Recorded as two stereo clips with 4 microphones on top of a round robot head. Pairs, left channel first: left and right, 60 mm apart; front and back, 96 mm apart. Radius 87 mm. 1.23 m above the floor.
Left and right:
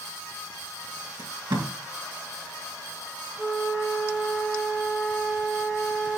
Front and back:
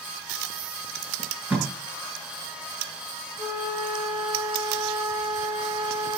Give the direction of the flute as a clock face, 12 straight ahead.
5 o'clock.